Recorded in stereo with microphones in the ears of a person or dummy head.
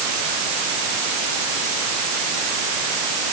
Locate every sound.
Only background noise.